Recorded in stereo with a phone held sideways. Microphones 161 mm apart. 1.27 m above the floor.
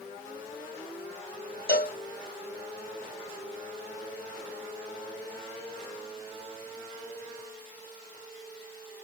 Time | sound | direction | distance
1.7 | a cowbell | 75° left (ahead or behind) | 0.8 m